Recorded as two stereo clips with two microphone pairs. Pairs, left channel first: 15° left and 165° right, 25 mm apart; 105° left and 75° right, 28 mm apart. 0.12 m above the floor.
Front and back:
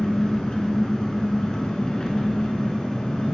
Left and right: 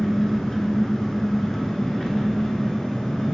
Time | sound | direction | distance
0.0 | an engine running | 45° left | 0.8 m